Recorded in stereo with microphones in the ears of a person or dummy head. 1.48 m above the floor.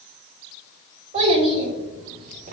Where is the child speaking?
35° right (ahead or behind), 2 m; by 2.5 s 50° right (ahead or behind), 2 m.